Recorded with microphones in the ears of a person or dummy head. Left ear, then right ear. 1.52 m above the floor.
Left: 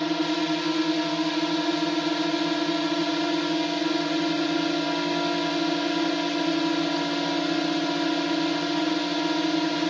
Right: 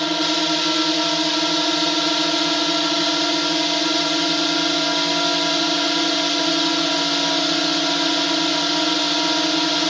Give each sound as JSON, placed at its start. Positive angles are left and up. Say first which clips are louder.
{"t": 0.0, "sound": "a drone", "louder": "right 6 dB", "side_deg": -35}